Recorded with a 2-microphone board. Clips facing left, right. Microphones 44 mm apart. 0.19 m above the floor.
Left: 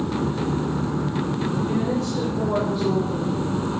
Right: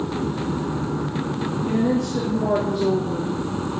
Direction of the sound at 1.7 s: 70° right (ahead or behind).